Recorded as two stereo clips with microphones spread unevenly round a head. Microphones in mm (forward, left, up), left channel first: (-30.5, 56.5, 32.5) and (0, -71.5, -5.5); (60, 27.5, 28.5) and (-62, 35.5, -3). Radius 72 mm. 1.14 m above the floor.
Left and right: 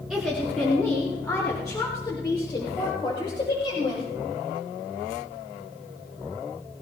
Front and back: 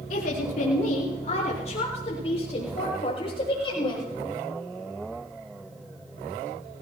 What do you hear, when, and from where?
0.1 s a woman speaking: 5° left, 4 m; by 4.0 s 50° left, 7.5 m